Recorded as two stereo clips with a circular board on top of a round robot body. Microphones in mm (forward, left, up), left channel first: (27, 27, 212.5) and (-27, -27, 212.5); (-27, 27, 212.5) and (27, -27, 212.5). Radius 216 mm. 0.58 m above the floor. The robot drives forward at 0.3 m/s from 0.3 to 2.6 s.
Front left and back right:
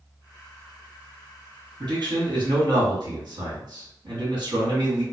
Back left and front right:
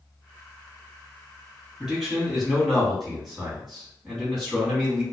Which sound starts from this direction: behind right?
A man speaking, at 1.8 s.